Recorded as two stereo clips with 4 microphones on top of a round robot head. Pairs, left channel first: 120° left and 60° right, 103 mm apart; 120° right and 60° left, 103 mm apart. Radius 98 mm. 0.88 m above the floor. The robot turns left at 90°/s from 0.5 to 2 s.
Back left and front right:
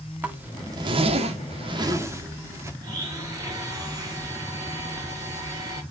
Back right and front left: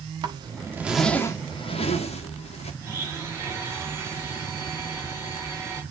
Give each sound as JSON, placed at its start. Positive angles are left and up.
{"t": 0.2, "sound": "a zipper", "azimuth_deg": 10, "distance_m": 1.6}
{"t": 2.8, "sound": "a blender", "azimuth_deg": -5, "distance_m": 6.0}